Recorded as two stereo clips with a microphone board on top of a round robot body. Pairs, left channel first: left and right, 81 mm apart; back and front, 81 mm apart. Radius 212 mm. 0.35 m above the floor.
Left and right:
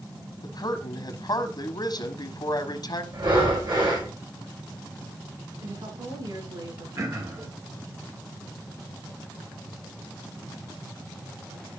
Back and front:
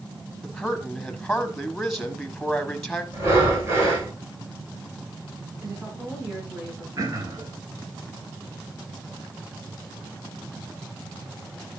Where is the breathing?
60° right, 5.5 m.